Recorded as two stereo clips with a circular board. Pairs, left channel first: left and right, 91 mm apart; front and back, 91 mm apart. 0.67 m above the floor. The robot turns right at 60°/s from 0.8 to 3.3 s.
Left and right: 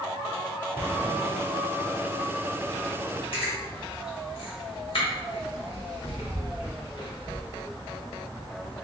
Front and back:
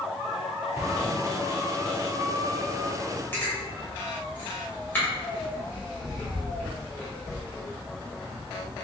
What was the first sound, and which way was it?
An explosion, 110° right.